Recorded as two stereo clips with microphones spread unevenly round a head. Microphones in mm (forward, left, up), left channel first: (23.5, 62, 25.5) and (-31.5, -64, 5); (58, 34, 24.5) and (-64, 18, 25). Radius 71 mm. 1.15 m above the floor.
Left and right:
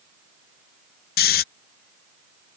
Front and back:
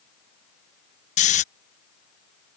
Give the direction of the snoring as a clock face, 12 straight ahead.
11 o'clock.